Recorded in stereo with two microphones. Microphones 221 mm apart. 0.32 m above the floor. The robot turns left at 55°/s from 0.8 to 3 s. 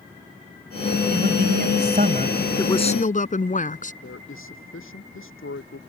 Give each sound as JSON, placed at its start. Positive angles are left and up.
{"t": 1.1, "sound": "a man speaking", "azimuth_deg": -65}
{"t": 2.6, "sound": "a woman speaking", "side_deg": 15}
{"t": 4.0, "sound": "a man speaking", "side_deg": 65}